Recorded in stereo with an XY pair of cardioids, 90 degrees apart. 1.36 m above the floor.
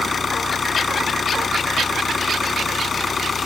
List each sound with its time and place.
0.0 s an engine running: 40° left